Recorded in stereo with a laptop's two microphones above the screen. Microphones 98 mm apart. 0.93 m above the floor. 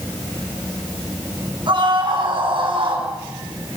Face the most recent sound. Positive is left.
turn(degrees=-55)  # may be behind; listen again after turning